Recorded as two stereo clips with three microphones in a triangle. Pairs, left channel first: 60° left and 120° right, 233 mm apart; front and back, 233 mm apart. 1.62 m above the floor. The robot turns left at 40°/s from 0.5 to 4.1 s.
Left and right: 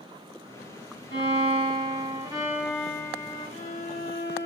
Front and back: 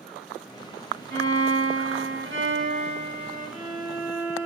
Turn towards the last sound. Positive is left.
turn(degrees=100)